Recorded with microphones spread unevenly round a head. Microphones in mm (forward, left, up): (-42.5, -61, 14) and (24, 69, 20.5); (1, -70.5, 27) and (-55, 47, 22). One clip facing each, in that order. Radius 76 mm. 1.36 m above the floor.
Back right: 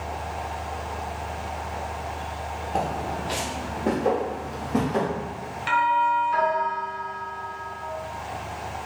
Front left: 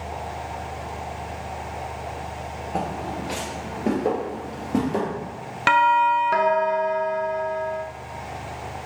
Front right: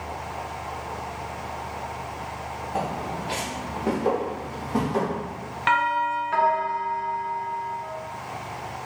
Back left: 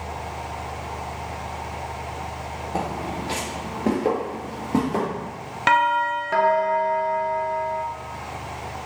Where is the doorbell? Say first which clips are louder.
Front left 4 dB, back left 3 dB; 65° left, 0.5 m.